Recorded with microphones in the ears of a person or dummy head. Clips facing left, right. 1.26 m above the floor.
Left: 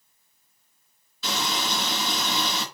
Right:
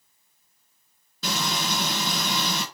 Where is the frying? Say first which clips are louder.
Even; 40° right (ahead or behind), 3 m.